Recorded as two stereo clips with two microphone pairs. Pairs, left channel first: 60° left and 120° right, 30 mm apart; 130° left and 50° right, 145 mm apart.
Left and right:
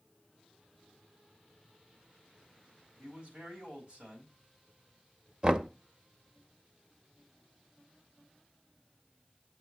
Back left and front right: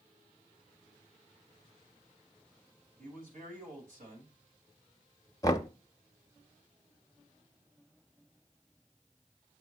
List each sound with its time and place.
3.0 s a man speaking: 65° right, 3 m
5.4 s knocking: 175° right, 0.5 m